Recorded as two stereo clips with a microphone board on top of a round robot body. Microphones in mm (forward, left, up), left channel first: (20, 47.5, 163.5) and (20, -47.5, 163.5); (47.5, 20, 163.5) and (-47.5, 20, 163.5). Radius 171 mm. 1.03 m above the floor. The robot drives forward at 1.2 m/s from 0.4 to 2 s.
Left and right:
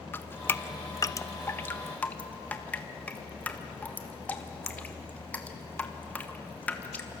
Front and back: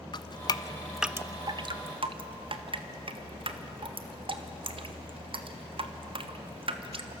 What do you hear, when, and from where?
0.1 s dripping: 30° left, 1.0 m; by 7.2 s 165° left, 1.4 m